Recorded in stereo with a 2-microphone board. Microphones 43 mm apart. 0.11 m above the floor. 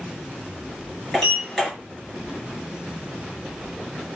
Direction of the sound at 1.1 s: 5° left (ahead or behind).